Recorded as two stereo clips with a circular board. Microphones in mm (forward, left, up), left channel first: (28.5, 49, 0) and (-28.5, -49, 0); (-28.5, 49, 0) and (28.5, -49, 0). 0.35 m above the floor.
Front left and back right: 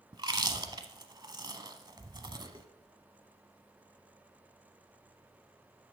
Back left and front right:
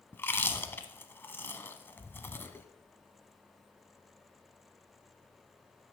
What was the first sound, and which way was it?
Chewing, 170° right.